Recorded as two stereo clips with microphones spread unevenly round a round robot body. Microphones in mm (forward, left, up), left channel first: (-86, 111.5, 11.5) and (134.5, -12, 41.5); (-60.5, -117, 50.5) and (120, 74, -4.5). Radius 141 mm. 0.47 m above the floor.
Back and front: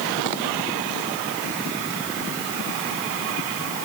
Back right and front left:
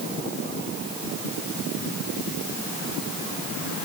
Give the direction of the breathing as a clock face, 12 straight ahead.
I don't hear breathing.